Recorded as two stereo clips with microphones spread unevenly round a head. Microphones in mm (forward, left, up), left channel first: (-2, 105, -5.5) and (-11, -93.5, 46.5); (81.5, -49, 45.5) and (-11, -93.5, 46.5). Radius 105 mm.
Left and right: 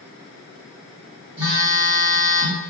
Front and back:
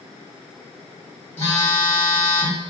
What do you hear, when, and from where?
1.4 s a phone buzzing: 40° right, 1.2 m